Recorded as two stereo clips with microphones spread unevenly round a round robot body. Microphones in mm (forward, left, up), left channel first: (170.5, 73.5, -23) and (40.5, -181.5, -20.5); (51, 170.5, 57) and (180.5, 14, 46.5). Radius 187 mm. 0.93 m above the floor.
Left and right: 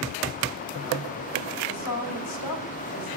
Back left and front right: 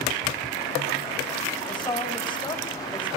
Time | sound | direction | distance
1.7 | a woman speaking | 60° left | 5 m